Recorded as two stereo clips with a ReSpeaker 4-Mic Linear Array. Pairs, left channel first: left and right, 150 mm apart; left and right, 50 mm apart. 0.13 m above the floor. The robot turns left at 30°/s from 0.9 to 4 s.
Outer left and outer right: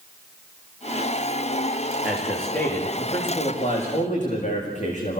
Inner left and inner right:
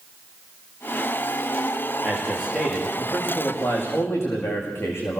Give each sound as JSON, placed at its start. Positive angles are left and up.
{"t": 2.0, "sound": "a man speaking", "azimuth_deg": -175, "distance_m": 9.5}